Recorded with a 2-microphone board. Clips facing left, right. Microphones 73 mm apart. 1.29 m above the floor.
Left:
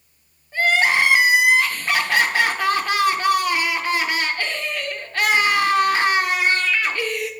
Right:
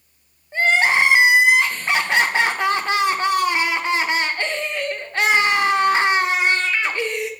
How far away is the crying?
About 0.9 m.